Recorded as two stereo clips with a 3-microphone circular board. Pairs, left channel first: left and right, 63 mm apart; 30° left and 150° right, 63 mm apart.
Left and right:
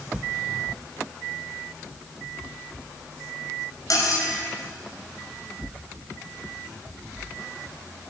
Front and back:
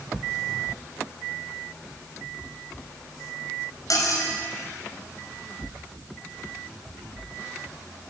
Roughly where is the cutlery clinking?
Ahead left.